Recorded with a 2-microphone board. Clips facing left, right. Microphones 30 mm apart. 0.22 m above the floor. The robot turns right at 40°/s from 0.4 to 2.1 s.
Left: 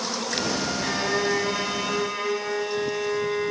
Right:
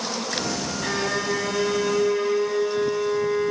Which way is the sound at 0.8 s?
Straight ahead.